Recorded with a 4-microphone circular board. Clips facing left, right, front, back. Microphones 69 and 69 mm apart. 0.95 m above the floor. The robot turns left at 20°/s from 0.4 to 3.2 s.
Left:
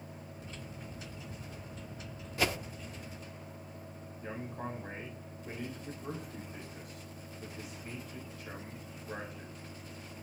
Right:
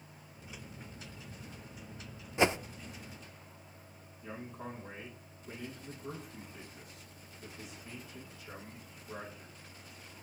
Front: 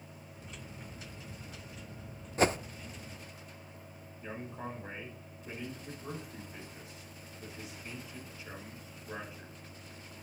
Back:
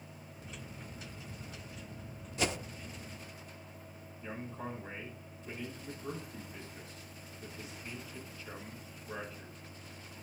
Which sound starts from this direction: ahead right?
A whoosh, at 2.4 s.